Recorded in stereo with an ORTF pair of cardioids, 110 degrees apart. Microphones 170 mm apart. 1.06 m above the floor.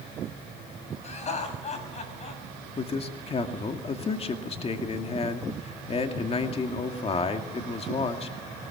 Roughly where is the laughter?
Ahead left.